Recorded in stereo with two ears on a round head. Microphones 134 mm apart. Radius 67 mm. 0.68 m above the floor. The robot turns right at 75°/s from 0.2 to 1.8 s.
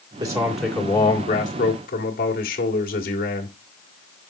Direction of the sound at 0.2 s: 30° right.